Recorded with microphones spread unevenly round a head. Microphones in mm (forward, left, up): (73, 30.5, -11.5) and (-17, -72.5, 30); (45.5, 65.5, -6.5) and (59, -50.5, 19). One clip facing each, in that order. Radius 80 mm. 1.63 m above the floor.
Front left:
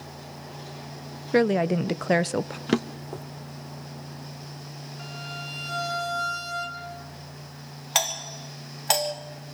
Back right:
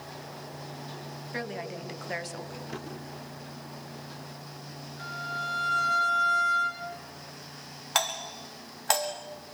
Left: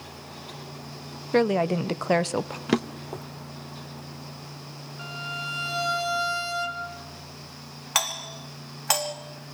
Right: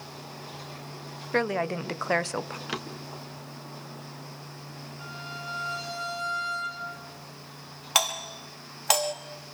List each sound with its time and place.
1.3 s a woman speaking: 25° left, 0.7 m
2.7 s a drawer: 60° left, 1.1 m
5.0 s a violin: 130° left, 5.5 m
8.0 s a doorbell: 15° right, 4 m